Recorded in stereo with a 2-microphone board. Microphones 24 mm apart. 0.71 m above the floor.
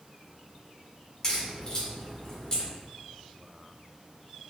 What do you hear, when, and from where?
1.2 s a crack: 30° left (ahead or behind), 1.5 m